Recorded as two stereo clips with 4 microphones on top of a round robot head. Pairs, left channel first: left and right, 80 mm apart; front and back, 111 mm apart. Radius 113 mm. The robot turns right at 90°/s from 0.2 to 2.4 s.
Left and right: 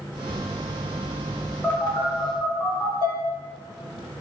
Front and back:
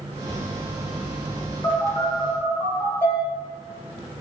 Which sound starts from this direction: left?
Dishes clattering, at 3.0 s.